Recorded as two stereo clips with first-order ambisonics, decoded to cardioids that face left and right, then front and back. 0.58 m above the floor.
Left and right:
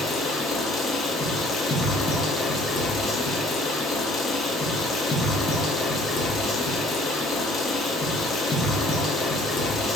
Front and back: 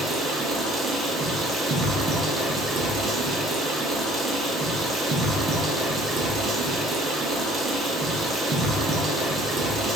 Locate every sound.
0.0 s running water: 135° left, 0.8 m